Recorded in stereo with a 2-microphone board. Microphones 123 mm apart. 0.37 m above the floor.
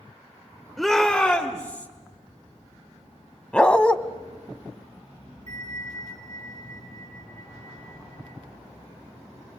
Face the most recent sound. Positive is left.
turn(degrees=-70)  # may be behind; listen again after turning